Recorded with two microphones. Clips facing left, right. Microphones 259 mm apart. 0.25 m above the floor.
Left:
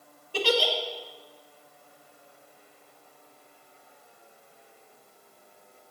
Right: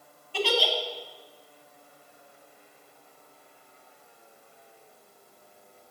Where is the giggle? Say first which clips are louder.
Left 2 dB; 45° left (ahead or behind), 1.5 m.